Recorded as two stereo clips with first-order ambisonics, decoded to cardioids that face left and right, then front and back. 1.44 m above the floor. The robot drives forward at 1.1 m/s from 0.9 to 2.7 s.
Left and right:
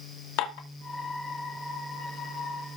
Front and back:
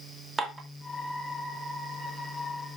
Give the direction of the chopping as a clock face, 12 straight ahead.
No chopping in this recording.